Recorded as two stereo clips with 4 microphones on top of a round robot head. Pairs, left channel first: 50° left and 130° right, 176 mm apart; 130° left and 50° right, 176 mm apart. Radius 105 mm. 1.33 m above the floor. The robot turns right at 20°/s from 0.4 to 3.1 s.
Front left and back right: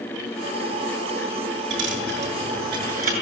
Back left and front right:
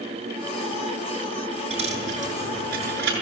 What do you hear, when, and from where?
1.7 s a dropped coin: 110° right, 6.5 m; by 3.1 s 80° right, 6.5 m